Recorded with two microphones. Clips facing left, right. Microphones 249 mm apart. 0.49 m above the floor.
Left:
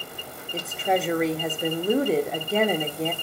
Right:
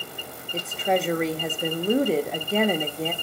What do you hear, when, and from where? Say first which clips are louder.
0.5 s a woman speaking: right 1 dB; centre (ahead or behind), 0.8 m